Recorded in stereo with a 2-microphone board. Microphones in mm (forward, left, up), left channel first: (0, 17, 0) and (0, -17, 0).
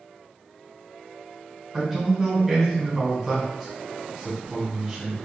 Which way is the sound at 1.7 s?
10° right (ahead or behind).